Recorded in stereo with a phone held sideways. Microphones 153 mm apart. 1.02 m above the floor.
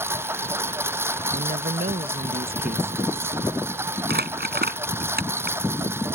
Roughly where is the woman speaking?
Right.